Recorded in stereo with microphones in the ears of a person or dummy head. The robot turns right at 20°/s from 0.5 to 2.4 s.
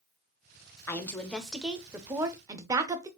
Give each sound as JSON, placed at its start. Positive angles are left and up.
{"t": 0.9, "sound": "a woman speaking", "azimuth_deg": 165, "distance_m": 0.6}